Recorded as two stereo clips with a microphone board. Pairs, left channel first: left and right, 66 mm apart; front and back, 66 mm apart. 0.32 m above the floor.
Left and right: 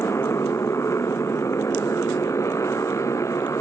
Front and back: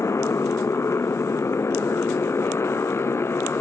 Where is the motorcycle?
45° left; by 3.6 s 50° left.